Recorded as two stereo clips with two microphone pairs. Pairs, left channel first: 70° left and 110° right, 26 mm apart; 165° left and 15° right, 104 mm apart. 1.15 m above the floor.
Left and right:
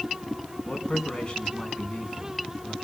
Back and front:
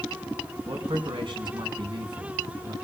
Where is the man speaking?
20° left, 5.5 m.